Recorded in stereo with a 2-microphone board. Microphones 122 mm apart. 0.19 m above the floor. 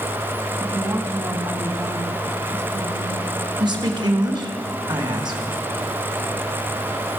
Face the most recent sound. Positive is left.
turn(degrees=-40)  # may be behind; listen again after turning